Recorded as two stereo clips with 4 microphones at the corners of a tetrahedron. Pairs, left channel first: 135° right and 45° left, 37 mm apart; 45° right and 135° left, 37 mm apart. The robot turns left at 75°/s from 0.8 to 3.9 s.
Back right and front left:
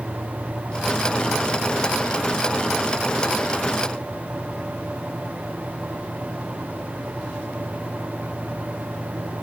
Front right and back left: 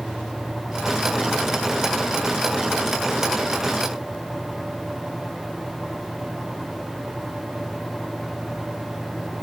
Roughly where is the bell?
No bell in this recording.